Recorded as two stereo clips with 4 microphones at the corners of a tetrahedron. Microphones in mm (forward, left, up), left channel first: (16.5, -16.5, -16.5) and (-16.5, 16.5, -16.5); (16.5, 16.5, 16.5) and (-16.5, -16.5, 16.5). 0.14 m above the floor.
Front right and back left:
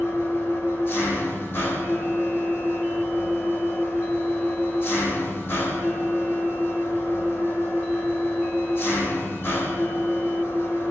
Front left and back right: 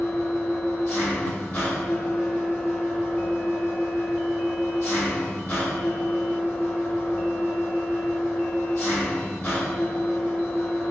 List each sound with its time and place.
0.0 s an engine running: 5° right, 5 m